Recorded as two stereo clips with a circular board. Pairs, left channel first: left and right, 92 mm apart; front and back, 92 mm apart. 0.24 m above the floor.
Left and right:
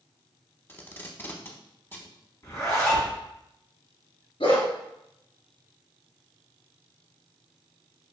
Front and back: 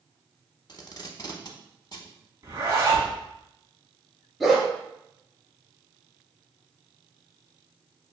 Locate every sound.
0.7 s tape being pulled: 30° left, 0.7 m
2.4 s a zipper: 135° left, 1.5 m
4.4 s a dog barking: 90° left, 1.3 m